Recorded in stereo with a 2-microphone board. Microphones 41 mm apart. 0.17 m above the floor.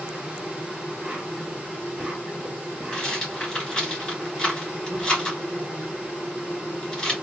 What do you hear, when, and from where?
0.0 s an insect: 20° right (ahead or behind), 1.5 m
2.9 s a rattle: 20° left (ahead or behind), 2.5 m